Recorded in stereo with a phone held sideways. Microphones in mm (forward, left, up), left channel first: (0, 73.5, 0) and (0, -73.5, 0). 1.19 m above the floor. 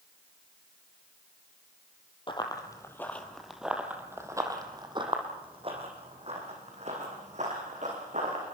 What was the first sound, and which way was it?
Running footsteps, 35° left (ahead or behind).